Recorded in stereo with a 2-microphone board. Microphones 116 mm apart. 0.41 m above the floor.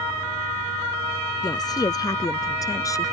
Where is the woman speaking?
35° left (ahead or behind); by 3.1 s 25° left (ahead or behind).